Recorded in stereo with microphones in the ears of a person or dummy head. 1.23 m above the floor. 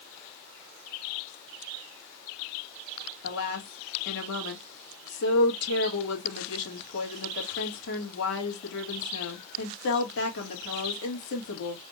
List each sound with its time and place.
3.2 s a woman speaking: 65° left (ahead or behind), 2.5 m